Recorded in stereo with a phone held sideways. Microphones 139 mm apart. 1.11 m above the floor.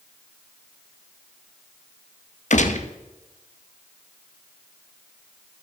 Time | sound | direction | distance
2.5 | a gunshot | 60° left (ahead or behind) | 1.0 m